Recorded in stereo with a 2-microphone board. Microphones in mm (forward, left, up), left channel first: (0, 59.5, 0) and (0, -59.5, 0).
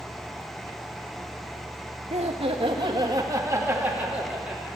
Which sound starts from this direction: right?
Laughter, at 2.1 s.